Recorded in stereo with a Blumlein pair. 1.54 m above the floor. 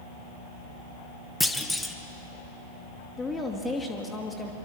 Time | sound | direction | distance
1.4 | a clunk | 5° left | 1.4 m
3.2 | a woman speaking | 10° left | 2.5 m